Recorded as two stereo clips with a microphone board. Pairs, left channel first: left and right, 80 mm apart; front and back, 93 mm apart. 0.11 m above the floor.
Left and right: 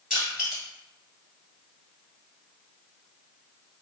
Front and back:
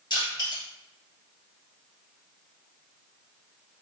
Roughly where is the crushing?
Ahead.